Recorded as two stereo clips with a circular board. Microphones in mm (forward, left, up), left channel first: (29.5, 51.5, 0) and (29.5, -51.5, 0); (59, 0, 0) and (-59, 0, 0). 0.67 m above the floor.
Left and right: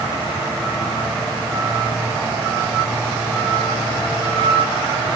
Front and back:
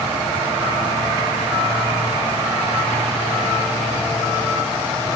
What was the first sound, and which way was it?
Only background noise.